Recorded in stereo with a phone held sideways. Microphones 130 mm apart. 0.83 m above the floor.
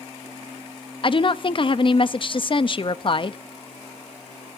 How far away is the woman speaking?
About 0.7 m.